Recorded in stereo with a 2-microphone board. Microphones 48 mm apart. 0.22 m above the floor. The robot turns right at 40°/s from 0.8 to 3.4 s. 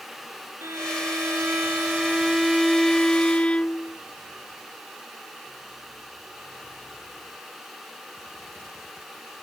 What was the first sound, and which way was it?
A violin, 75° right.